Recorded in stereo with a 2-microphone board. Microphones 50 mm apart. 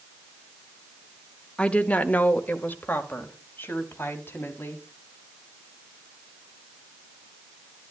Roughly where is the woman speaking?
Left.